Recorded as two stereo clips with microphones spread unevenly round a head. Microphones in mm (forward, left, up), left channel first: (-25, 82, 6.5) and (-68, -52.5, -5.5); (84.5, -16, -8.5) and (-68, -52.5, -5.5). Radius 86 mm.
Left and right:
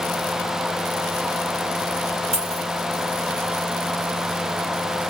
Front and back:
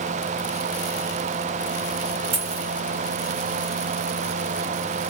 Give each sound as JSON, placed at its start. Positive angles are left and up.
{"t": 2.3, "sound": "a dropped coin", "azimuth_deg": -145, "distance_m": 1.6}